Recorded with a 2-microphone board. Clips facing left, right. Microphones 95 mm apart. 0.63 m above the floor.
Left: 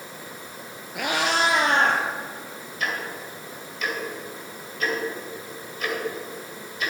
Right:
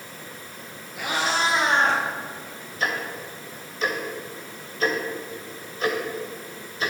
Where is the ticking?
30° right (ahead or behind), 2 m.